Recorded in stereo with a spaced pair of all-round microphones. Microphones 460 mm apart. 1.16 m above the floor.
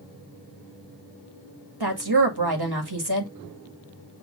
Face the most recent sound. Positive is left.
turn(degrees=-55)  # may be behind; listen again after turning